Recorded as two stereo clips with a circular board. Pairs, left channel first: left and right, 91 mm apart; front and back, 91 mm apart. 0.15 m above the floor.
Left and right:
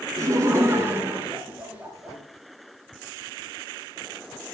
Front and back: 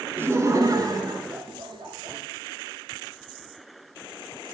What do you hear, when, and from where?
0.2 s laughter: 125° right, 1.6 m; by 2.2 s 165° right, 3 m